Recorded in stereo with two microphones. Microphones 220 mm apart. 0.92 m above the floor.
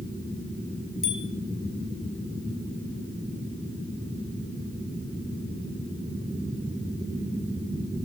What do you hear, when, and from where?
1.0 s a bicycle bell: 70° left (ahead or behind), 3 m